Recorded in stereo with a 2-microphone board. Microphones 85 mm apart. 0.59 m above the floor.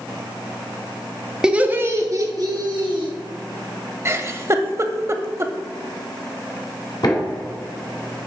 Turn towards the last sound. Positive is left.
turn(degrees=55)  # may be behind; listen again after turning